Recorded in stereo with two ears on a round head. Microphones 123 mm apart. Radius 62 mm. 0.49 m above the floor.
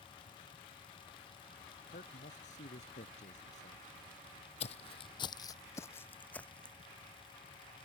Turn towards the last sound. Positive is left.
turn(degrees=5)  # may be behind; listen again after turning